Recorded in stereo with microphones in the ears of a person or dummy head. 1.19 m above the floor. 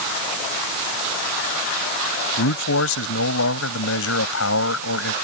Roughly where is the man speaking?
Left.